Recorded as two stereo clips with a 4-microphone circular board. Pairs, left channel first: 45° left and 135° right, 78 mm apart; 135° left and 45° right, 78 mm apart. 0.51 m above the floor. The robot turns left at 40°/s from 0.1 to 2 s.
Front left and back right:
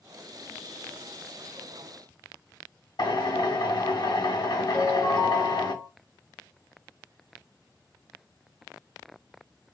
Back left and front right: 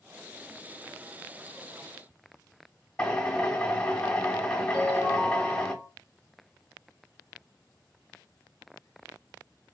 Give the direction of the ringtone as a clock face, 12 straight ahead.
1 o'clock.